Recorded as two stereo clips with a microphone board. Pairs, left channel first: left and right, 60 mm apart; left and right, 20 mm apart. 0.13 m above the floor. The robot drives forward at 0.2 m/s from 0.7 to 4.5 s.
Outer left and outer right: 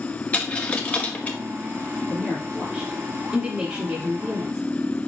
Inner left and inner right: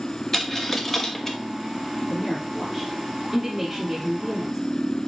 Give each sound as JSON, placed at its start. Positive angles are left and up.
{"t": 0.3, "sound": "a dropped coin", "side_deg": 25, "distance_m": 1.0}
{"t": 2.1, "sound": "a woman speaking", "side_deg": -5, "distance_m": 3.0}